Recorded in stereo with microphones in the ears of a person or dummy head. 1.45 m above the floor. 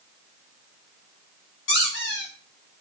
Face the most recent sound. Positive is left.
turn(degrees=60)  # may be behind; listen again after turning